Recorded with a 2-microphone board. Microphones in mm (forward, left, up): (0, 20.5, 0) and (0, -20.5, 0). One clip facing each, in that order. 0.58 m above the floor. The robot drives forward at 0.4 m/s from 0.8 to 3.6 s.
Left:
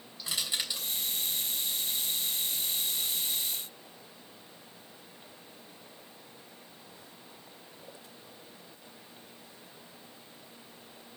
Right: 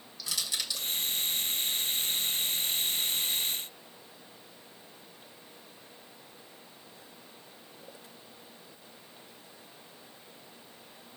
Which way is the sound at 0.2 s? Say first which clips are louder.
Left 1 dB; 25° left (ahead or behind).